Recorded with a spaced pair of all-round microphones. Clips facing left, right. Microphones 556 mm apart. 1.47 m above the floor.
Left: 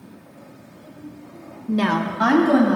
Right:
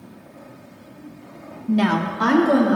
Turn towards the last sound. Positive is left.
turn(degrees=20)  # may be behind; listen again after turning